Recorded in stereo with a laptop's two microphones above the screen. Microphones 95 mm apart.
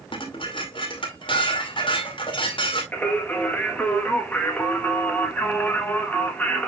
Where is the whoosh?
I don't hear a whoosh.